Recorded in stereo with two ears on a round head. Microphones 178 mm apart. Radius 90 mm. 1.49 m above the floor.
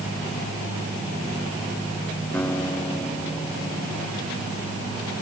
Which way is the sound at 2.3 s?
10° left (ahead or behind).